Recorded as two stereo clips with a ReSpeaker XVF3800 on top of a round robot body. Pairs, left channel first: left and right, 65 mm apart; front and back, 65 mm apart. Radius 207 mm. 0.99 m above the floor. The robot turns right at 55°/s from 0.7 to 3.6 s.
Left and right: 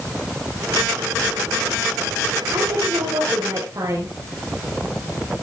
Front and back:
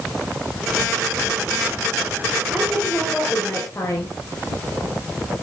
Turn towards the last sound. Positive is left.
turn(degrees=-50)